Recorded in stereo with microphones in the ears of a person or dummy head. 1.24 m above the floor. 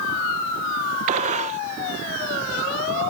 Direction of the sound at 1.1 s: 45° right (ahead or behind).